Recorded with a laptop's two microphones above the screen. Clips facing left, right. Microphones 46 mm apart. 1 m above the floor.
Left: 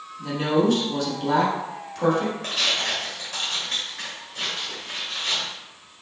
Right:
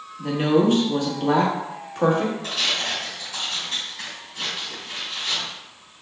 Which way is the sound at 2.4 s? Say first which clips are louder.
Even; 65° left (ahead or behind).